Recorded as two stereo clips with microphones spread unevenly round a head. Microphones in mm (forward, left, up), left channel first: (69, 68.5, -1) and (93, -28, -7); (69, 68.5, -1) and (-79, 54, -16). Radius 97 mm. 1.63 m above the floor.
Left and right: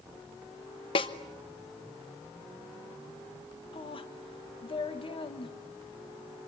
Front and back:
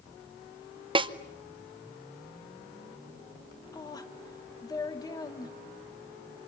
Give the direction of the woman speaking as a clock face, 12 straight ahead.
10 o'clock.